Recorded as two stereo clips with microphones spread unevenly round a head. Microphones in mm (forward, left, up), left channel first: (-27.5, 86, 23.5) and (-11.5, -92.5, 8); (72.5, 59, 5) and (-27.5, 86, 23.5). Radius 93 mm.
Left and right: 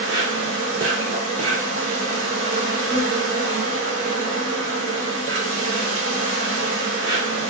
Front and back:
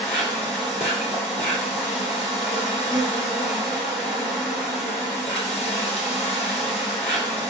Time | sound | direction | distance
0.0 | an insect | 60° right | 2 m